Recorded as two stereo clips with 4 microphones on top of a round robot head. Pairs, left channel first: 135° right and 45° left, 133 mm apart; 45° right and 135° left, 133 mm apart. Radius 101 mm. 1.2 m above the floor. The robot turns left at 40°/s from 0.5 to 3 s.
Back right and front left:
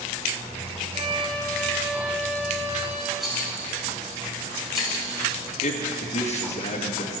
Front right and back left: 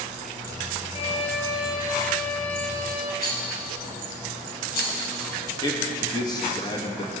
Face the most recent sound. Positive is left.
turn(degrees=-105)